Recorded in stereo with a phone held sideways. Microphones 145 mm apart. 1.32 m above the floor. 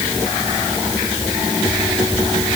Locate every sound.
Only background noise.